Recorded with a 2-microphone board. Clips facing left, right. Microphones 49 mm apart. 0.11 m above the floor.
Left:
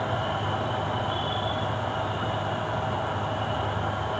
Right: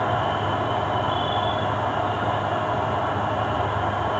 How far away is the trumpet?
I don't hear a trumpet.